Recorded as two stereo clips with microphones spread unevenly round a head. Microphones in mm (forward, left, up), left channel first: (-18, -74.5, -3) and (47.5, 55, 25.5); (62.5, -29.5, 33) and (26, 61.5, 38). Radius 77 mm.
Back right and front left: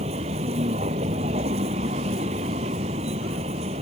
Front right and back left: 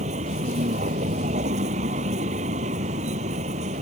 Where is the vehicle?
115° left.